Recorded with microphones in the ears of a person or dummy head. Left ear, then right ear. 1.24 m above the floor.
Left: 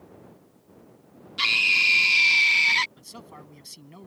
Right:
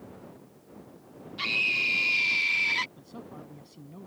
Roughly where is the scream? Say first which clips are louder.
Left 6 dB; left.